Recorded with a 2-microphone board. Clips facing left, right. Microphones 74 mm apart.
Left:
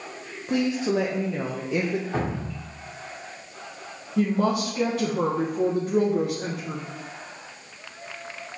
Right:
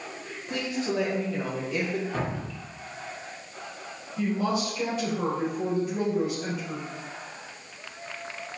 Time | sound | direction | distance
0.5 | a woman speaking | 20° left (ahead or behind) | 1.0 m
2.1 | dripping | 30° left (ahead or behind) | 2.5 m
4.2 | a woman speaking | 75° left (ahead or behind) | 2.5 m